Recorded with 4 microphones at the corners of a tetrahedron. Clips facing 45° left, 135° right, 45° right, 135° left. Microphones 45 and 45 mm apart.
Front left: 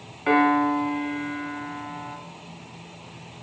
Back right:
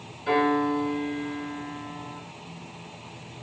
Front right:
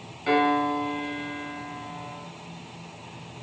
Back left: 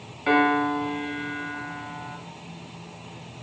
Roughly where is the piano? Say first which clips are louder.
Front left 3 dB, back left 2 dB; ahead left.